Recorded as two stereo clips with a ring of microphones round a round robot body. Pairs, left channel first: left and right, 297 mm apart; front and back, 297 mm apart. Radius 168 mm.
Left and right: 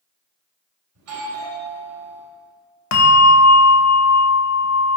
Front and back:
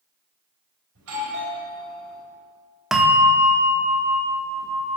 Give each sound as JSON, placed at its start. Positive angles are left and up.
{"t": 0.9, "sound": "a doorbell", "azimuth_deg": -135, "distance_m": 3.5}
{"t": 2.9, "sound": "a bell", "azimuth_deg": 90, "distance_m": 1.0}